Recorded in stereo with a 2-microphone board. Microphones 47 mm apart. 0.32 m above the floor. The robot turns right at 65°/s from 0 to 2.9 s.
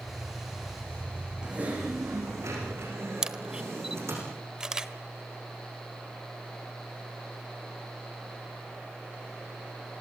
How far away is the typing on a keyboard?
About 9.5 m.